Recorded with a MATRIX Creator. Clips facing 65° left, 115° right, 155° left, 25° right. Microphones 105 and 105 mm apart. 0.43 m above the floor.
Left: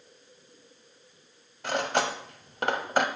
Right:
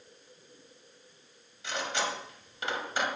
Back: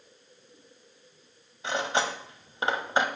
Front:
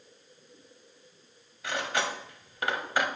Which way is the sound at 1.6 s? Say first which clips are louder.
Left 6 dB, back 3 dB; 95° left.